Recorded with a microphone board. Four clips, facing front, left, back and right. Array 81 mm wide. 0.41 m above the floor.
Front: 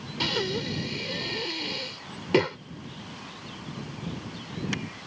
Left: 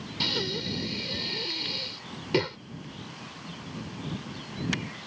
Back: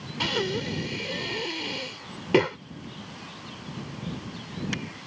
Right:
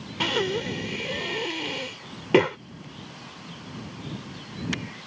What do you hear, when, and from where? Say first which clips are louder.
0.2 s breathing: right 7 dB, back 1 dB; 100° right